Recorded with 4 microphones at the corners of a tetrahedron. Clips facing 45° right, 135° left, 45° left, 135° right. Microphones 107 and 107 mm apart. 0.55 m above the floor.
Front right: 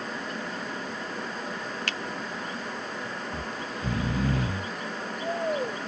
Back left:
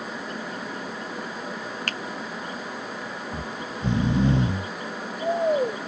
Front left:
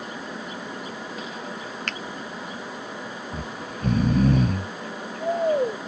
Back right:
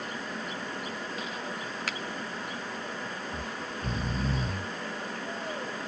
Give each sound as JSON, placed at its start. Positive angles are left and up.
{"t": 1.9, "sound": "a finger snap", "azimuth_deg": 145}
{"t": 3.3, "sound": "snoring", "azimuth_deg": 70}